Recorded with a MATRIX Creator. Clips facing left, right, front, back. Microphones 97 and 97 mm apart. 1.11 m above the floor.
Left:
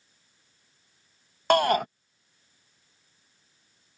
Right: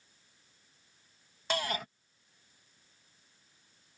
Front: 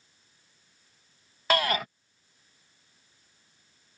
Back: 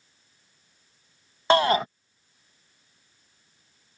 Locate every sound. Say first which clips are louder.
1.5 s a shout: left 13 dB, back 7 dB; 120° left